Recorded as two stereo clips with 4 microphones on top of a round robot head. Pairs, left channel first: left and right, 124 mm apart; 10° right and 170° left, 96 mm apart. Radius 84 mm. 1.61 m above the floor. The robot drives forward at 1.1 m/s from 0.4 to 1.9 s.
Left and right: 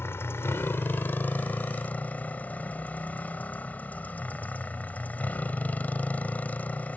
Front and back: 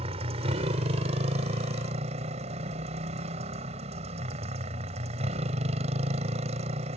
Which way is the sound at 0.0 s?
160° left.